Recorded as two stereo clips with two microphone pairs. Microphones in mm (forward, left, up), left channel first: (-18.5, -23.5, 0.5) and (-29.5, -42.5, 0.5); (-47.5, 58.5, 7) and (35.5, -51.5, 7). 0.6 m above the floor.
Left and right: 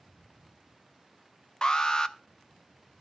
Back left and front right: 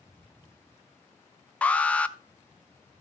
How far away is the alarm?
About 0.5 m.